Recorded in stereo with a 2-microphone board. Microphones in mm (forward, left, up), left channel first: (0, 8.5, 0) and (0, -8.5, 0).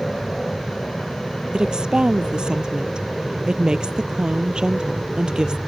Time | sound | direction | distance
0.0 | an aircraft | 65° left (ahead or behind) | ?
1.5 | a woman speaking | 55° right (ahead or behind) | ?